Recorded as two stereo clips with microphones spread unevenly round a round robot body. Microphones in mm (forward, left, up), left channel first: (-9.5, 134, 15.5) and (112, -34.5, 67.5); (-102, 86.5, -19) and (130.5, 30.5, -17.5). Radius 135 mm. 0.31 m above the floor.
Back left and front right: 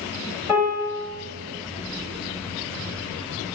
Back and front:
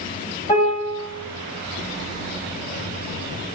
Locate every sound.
0.5 s a piano: 145° right, 1.8 m